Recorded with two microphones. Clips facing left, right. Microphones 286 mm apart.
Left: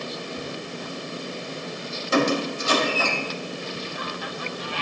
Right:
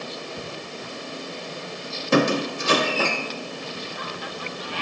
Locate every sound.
2.1 s a squeak: 65° right (ahead or behind), 1.0 m